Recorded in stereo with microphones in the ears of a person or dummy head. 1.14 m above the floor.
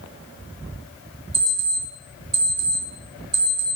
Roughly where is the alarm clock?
Right.